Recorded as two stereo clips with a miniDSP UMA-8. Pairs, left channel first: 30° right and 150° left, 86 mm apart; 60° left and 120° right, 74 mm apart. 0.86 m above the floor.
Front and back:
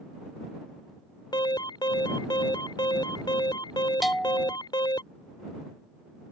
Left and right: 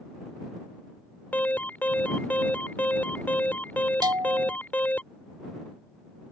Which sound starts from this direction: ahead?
An alarm, at 1.3 s.